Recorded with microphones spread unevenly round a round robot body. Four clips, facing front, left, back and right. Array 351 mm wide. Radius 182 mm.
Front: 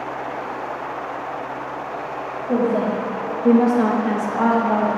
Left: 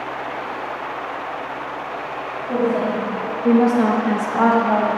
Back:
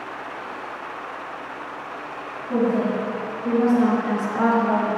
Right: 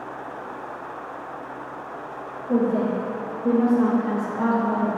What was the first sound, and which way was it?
A woman speaking, 30° right.